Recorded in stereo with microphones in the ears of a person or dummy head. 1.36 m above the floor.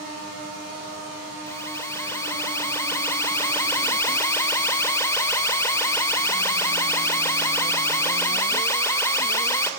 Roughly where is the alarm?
Centre.